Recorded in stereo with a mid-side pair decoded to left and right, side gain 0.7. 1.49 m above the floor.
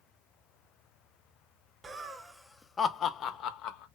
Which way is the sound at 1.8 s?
20° right.